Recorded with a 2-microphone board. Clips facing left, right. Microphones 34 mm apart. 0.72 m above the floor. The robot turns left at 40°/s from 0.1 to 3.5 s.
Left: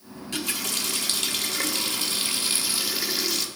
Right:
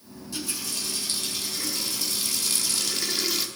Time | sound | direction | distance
0.1 | a running tap | 125° left | 1.1 m